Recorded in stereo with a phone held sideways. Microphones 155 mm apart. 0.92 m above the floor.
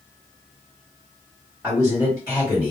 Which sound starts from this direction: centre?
A man speaking, at 1.6 s.